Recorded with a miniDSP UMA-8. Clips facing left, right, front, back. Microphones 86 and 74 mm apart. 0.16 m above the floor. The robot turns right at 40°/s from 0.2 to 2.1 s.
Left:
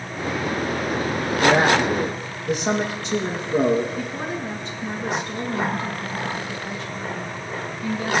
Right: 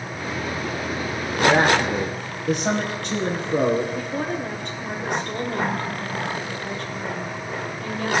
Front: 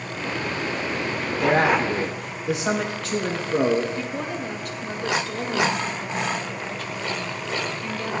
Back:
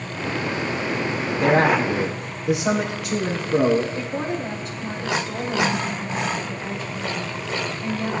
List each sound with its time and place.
1.4 s a man speaking: 135° right, 5 m; by 3.9 s 105° right, 5 m
4.0 s a woman speaking: 115° right, 4.5 m